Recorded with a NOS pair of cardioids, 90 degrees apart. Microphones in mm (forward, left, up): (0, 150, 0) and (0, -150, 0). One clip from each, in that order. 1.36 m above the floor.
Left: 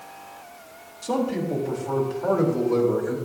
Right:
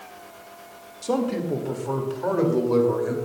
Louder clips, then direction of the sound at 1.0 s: Even; 15° right.